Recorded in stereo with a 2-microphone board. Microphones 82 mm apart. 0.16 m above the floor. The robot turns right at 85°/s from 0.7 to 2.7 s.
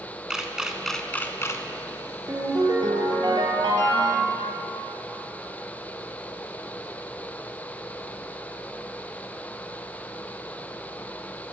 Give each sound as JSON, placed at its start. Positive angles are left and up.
{"t": 0.3, "sound": "a camera shutter", "side_deg": -10, "distance_m": 0.5}
{"t": 2.3, "sound": "a ringtone", "azimuth_deg": -140, "distance_m": 1.6}